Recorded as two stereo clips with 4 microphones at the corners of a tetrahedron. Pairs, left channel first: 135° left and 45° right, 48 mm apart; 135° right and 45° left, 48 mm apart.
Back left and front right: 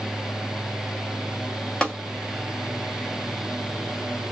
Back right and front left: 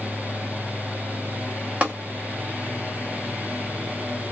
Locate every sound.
1.8 s tapping: 75° left, 1.6 m